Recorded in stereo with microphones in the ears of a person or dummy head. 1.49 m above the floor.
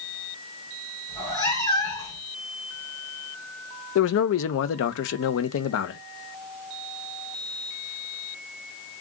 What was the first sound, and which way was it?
A cat meowing, 20° left (ahead or behind).